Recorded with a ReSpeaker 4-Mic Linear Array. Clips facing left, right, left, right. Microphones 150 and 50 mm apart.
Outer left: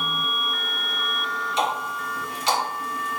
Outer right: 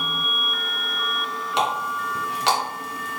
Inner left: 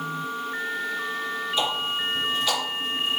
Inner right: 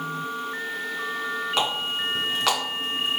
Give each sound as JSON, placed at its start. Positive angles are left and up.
{"t": 1.6, "sound": "a running tap", "side_deg": -75, "distance_m": 2.0}